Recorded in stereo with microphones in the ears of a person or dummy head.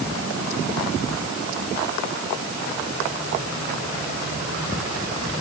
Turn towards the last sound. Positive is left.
No sound to turn to.